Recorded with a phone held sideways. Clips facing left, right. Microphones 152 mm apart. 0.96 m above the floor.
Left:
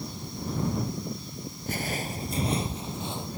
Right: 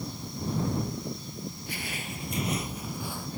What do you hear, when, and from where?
1.7 s footsteps: 45° left (ahead or behind); by 3.3 s 20° left (ahead or behind)